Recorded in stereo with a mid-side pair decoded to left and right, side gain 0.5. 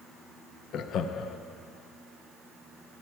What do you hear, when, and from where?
0.7 s laughter: 65° left, 0.7 m